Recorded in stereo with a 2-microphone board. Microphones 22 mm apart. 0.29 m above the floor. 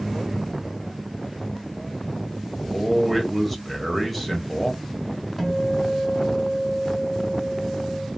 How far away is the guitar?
About 1.6 m.